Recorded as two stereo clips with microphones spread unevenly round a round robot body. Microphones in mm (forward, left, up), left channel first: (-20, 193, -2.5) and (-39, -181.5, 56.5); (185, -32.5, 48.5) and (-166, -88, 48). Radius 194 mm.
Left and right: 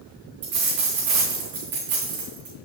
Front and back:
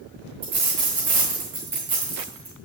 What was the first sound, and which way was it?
A dropped coin, 130° right.